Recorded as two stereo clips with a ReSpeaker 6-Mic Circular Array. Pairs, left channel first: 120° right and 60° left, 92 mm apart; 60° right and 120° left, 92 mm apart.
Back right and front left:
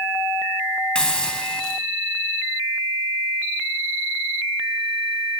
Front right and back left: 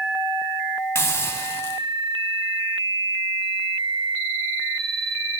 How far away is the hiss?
About 1.0 m.